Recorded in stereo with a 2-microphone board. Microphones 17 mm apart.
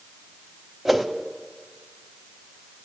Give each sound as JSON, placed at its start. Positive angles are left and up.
{"t": 0.8, "sound": "a whoosh", "side_deg": -10, "distance_m": 0.7}